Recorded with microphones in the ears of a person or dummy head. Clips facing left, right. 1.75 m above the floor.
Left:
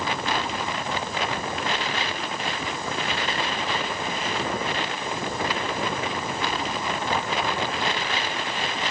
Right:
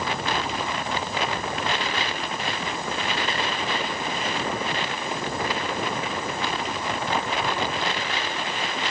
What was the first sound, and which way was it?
Only background noise.